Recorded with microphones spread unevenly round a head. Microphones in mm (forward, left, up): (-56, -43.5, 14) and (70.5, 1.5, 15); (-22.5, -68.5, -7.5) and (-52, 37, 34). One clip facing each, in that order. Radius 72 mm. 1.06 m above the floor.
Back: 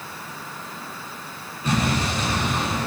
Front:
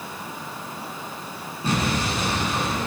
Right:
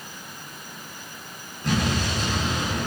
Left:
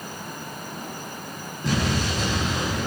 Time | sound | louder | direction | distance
1.6 | an explosion | back 1 dB, even | 85° left | 8.5 m